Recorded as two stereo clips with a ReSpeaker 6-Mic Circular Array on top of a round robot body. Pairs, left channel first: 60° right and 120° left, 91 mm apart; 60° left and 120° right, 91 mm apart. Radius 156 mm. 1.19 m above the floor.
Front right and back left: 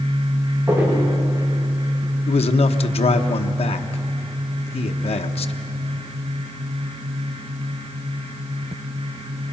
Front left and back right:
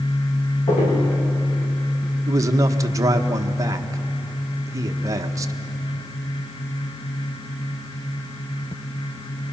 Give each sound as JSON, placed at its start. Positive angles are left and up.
{"t": 0.7, "sound": "footsteps", "azimuth_deg": 50, "distance_m": 6.5}
{"t": 2.3, "sound": "a man speaking", "azimuth_deg": -65, "distance_m": 1.0}